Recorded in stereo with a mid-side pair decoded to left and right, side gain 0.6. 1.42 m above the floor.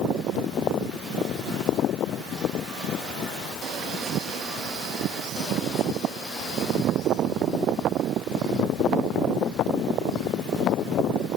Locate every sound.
Only background noise.